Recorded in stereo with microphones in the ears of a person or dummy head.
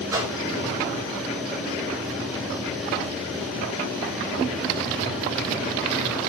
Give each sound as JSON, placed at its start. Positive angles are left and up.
{"t": 0.1, "sound": "a whoosh", "side_deg": -20, "distance_m": 3.5}